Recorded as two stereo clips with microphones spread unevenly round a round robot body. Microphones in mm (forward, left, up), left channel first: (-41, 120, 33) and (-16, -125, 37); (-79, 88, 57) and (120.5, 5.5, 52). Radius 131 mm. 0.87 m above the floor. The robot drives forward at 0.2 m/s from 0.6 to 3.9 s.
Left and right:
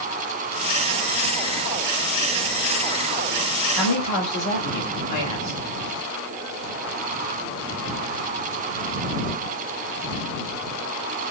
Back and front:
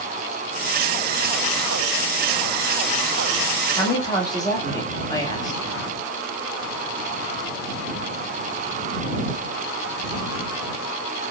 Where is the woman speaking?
85° left, 2.5 m.